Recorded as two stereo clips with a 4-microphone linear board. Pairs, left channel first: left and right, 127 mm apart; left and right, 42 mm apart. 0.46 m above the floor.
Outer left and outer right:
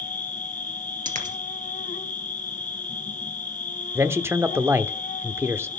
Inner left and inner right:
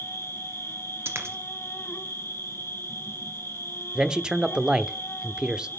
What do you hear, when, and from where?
0.0 s an insect: 75° left (ahead or behind), 1.2 m
1.1 s a dropped coin: 90° right, 2 m
4.0 s a man speaking: 20° right (ahead or behind), 0.8 m